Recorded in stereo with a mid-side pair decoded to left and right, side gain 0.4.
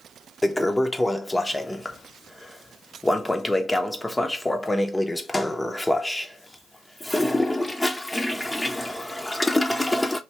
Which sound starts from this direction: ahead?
A toilet flushing, at 0.4 s.